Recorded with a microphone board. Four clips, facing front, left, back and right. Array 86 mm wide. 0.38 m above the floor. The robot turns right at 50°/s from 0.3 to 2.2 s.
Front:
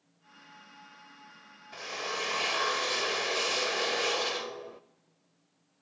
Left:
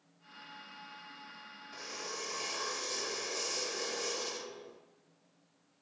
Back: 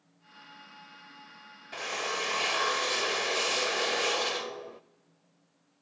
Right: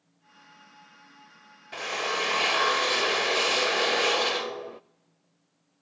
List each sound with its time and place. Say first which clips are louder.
1.7 s a drill: right 14 dB, back 3 dB; 115° right, 0.5 m; by 4.8 s 95° right, 0.5 m